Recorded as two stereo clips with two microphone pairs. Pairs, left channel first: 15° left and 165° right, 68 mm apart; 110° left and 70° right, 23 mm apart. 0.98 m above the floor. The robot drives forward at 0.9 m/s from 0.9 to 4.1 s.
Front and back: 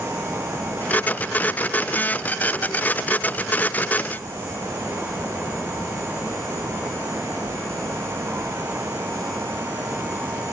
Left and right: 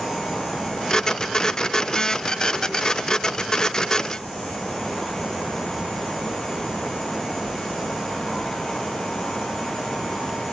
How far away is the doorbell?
I don't hear a doorbell.